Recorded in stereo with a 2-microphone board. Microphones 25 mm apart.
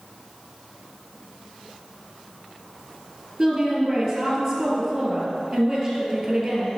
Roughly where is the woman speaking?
Centre.